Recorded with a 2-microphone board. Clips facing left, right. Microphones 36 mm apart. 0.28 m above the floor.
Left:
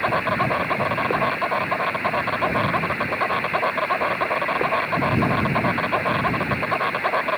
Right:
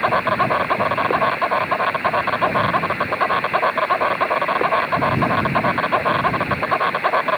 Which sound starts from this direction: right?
An insect, at 0.0 s.